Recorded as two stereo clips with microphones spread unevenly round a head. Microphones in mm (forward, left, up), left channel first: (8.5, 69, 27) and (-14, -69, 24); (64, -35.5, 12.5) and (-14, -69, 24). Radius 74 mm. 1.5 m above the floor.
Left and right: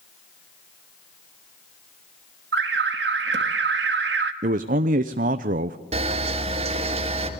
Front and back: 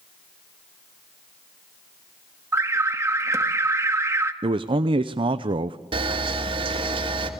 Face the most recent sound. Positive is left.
turn(degrees=-145)